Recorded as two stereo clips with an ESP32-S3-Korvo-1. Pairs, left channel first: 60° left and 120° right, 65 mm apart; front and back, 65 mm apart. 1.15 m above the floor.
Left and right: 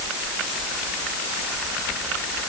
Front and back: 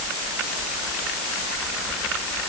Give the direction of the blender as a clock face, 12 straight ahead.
No blender in this recording.